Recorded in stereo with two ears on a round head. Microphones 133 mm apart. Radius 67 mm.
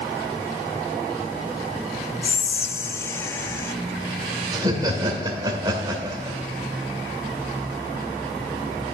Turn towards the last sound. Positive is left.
turn(degrees=-30)  # may be behind; listen again after turning